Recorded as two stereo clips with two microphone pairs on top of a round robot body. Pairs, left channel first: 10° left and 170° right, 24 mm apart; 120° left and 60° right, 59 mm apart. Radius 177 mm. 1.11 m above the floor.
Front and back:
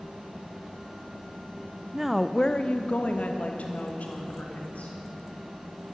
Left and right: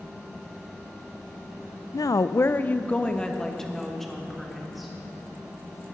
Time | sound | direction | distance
1.9 | a woman speaking | 120° left | 0.5 m